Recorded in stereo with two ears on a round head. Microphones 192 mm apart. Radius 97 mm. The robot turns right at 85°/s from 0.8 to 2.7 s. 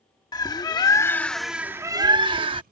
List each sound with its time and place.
0.3 s a bird: 20° left (ahead or behind); by 2.6 s 25° right (ahead or behind)